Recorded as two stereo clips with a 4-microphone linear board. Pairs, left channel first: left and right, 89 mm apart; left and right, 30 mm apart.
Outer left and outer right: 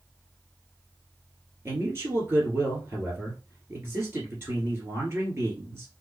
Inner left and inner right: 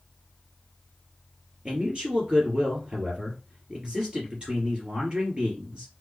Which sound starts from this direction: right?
A man speaking, at 1.6 s.